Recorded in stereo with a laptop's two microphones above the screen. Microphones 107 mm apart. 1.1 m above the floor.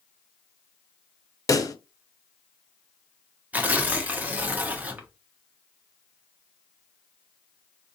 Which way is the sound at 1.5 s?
30° left (ahead or behind).